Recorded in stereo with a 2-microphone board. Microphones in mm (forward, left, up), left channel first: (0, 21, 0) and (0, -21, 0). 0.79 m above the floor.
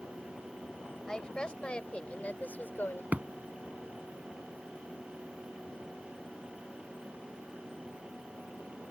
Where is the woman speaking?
15° left (ahead or behind); by 3.0 s 50° left (ahead or behind).